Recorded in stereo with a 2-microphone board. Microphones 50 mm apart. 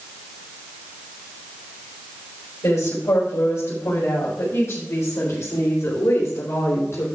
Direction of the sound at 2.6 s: 80° left.